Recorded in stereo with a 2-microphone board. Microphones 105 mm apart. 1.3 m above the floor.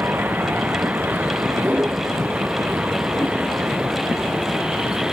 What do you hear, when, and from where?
0.0 s a vehicle: 15° right (ahead or behind); by 5.1 s 5° right (ahead or behind)